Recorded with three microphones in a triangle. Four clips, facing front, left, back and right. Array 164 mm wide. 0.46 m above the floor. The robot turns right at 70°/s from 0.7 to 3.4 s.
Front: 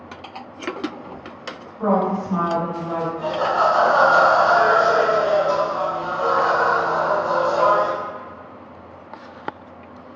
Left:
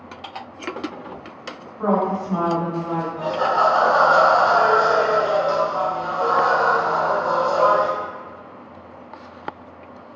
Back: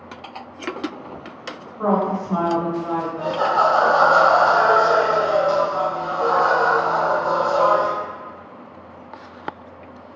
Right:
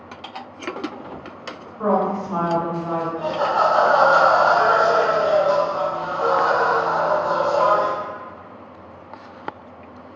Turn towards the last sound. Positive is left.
turn(degrees=-175)